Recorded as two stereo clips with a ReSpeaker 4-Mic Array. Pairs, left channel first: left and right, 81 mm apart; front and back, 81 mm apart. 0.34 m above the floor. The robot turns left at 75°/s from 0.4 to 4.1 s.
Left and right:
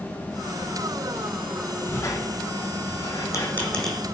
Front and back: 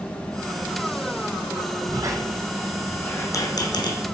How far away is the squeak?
About 0.8 m.